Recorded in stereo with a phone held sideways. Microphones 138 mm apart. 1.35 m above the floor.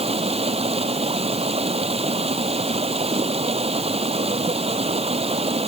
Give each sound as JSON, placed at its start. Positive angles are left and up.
{"t": 0.0, "sound": "running water", "side_deg": -50}